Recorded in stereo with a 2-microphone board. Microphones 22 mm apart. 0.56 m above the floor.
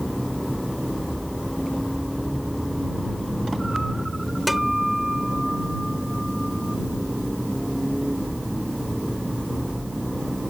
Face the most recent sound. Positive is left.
turn(degrees=-10)  # may be behind; listen again after turning